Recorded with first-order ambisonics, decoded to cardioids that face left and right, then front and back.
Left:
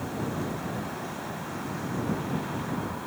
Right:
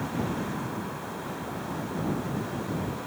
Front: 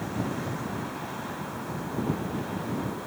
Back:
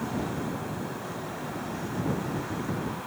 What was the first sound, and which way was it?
Only background noise.